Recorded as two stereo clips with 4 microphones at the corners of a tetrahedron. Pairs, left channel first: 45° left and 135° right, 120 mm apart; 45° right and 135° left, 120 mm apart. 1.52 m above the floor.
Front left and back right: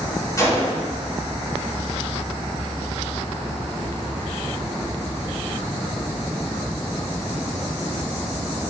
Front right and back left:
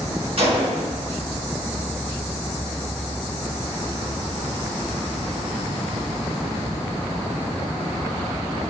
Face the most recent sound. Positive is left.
turn(degrees=105)